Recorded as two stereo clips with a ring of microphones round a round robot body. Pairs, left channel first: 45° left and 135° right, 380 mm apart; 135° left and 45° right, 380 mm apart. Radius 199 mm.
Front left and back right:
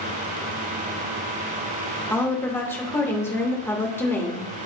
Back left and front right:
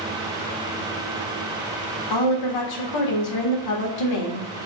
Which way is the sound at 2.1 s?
130° left.